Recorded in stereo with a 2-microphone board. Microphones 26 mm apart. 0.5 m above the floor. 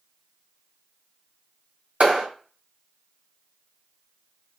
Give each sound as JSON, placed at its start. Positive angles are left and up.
{"t": 2.0, "sound": "a clap", "side_deg": -50, "distance_m": 1.8}